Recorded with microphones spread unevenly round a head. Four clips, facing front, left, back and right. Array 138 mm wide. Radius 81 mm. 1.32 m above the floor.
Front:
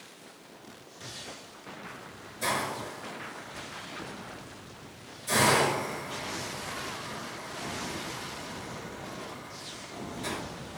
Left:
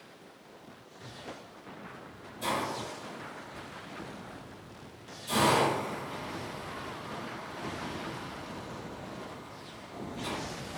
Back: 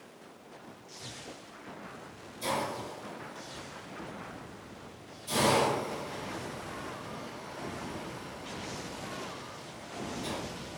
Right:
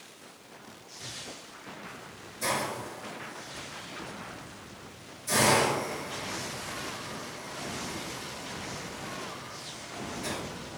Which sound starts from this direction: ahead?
A hiss, at 2.4 s.